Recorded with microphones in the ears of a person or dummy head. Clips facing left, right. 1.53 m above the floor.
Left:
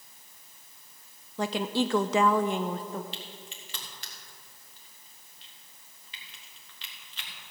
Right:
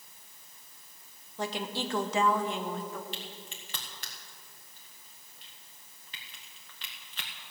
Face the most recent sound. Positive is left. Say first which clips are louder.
# even
turn(degrees=-45)  # may be behind; listen again after turning